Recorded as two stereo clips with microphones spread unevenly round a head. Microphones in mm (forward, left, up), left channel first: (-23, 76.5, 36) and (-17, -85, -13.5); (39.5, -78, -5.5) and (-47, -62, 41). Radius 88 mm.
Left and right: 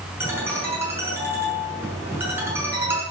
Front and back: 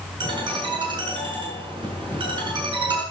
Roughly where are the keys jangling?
No keys jangling in this recording.